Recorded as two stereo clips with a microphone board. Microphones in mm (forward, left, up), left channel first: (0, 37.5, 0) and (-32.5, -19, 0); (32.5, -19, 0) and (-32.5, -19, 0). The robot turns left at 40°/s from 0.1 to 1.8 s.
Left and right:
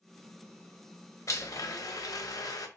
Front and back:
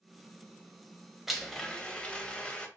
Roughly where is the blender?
Left.